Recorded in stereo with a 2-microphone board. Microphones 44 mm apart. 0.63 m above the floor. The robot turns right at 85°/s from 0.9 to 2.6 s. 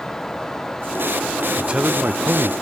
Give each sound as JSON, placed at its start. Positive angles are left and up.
{"t": 1.6, "sound": "a man speaking", "azimuth_deg": -160, "distance_m": 0.9}